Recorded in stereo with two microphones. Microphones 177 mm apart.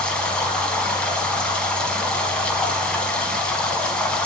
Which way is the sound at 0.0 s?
5° left (ahead or behind).